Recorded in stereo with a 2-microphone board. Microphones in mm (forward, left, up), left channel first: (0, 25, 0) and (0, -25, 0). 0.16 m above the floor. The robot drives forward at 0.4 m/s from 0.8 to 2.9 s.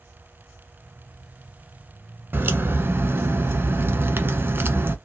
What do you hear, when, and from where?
2.3 s a crack: 45° right (ahead or behind), 0.8 m; by 5.0 s 50° right (ahead or behind), 0.8 m